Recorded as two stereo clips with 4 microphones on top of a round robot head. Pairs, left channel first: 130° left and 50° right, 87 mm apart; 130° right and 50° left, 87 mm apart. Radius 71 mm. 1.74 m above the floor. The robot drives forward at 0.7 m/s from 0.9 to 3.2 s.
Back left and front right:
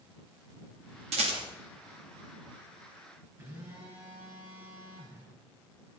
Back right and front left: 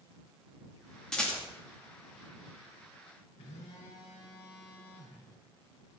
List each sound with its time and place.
1.1 s a rattle: 50° right, 2.5 m
3.4 s a phone buzzing: 110° right, 5 m